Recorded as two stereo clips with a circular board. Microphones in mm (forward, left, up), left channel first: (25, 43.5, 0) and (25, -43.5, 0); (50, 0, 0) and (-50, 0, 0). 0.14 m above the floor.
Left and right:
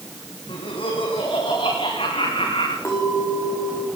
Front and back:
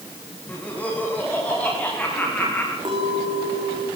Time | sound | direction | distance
0.5 | laughter | 75° left | 7 m
2.9 | a clink | 145° left | 8 m